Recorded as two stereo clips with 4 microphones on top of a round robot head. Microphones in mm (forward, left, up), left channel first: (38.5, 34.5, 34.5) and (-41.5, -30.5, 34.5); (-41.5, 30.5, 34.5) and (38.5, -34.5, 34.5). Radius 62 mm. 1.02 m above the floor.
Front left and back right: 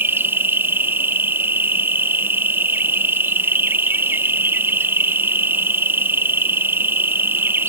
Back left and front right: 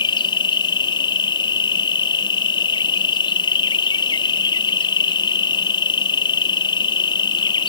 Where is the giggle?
I don't hear a giggle.